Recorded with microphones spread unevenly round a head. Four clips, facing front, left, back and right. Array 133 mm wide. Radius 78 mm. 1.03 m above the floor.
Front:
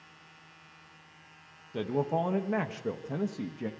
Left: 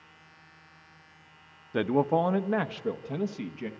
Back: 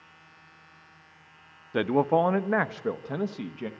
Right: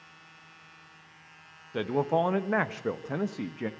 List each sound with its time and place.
1.7 s a man speaking: straight behind, 0.9 m; by 3.7 s 130° right, 1.3 m